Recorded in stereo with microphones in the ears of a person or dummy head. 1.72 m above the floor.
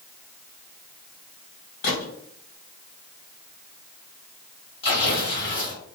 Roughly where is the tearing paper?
Left.